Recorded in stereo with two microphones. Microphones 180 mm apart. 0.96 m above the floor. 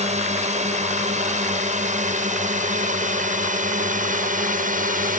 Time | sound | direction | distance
0.0 | a drone | 40° right (ahead or behind) | ?